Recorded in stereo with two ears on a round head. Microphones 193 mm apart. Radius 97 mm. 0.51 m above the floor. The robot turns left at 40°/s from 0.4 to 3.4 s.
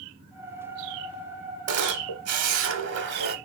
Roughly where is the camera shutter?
Right.